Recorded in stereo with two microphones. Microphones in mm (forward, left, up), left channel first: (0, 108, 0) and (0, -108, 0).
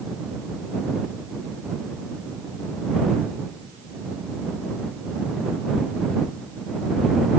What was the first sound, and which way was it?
Only background noise.